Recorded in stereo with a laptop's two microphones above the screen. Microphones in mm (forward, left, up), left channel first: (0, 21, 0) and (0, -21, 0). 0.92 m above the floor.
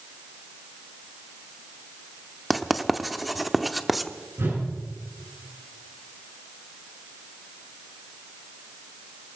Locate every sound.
2.5 s writing: centre (ahead or behind), 0.6 m
4.4 s a whoosh: 75° right (ahead or behind), 7 m